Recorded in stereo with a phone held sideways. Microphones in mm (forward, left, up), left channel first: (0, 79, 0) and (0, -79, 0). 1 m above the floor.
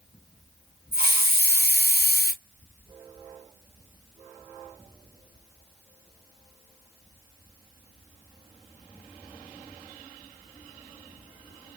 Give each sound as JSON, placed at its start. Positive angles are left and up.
{"t": 0.9, "sound": "a hiss", "side_deg": -80, "distance_m": 2.5}